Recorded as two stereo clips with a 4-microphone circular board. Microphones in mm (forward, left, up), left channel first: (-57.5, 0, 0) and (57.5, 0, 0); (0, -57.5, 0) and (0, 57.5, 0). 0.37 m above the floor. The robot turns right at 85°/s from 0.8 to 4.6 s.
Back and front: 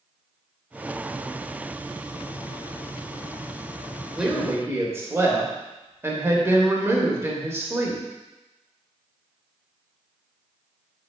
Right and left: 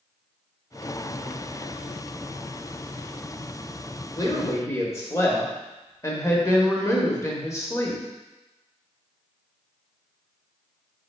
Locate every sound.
4.2 s a woman speaking: 85° right, 0.9 m; by 8.0 s 50° right, 0.9 m